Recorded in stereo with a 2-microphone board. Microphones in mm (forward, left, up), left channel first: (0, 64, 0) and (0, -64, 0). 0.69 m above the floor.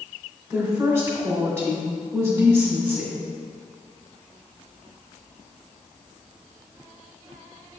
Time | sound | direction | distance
0.5 | a woman speaking | 20° right (ahead or behind) | 1.9 m